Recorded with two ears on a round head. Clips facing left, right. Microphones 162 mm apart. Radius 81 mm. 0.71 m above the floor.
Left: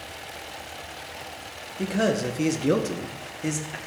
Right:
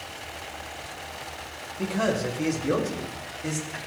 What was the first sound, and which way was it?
A man speaking, 20° left (ahead or behind).